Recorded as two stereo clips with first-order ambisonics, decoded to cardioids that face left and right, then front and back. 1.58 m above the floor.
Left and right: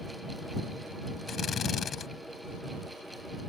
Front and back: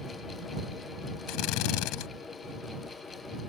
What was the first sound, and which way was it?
A drill, 25° left.